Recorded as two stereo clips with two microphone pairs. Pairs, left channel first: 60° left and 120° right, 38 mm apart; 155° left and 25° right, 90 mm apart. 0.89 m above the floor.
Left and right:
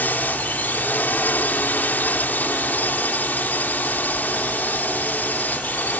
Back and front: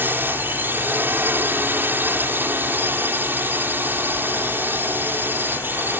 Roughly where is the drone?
Ahead left.